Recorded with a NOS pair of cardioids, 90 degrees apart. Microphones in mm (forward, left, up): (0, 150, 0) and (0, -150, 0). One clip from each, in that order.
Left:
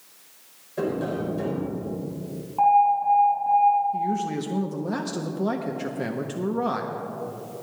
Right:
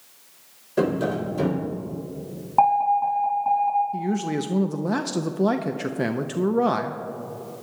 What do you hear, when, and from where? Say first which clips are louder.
0.8 s tapping: right 4 dB; 70° right, 4 m
2.6 s an alarm: even; 65° right, 4.5 m
3.9 s a man speaking: left 1 dB; 25° right, 0.6 m